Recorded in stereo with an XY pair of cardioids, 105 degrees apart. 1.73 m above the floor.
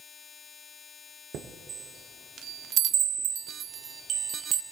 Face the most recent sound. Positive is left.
turn(degrees=-65)